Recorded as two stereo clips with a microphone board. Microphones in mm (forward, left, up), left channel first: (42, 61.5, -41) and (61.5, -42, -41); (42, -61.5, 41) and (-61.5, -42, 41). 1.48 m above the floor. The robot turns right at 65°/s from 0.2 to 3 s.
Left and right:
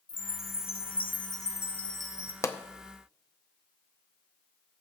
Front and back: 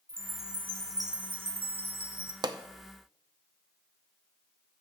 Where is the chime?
70° left, 0.7 m; by 2.3 s 150° right, 0.7 m.